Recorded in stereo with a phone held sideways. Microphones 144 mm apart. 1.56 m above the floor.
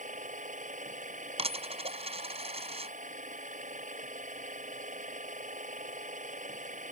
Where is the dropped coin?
40° right (ahead or behind).